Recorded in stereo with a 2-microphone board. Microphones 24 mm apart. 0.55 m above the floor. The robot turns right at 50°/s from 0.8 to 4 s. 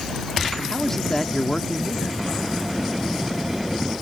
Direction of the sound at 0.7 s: 15° left (ahead or behind).